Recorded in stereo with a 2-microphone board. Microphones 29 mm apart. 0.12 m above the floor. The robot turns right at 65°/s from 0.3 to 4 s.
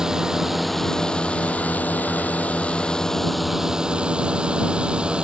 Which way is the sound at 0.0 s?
20° right.